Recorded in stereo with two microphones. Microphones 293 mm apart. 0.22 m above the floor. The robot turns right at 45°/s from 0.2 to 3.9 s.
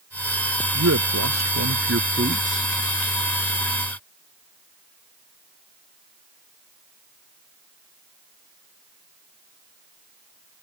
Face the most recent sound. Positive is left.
turn(degrees=35)